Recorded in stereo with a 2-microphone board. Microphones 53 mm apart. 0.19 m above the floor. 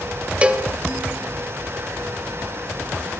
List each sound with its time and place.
0.4 s a cowbell: 20° right (ahead or behind), 1.1 m